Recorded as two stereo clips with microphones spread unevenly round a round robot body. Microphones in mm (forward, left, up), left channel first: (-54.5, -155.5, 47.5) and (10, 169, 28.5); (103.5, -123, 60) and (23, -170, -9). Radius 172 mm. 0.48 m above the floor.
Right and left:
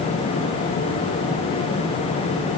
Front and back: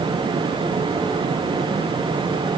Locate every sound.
Only background noise.